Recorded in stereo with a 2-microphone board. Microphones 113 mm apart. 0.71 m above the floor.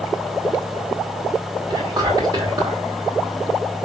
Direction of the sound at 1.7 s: 35° right (ahead or behind).